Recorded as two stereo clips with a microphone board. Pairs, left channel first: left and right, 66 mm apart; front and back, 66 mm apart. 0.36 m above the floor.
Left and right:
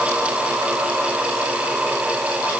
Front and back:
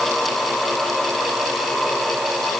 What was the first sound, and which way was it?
Only background noise.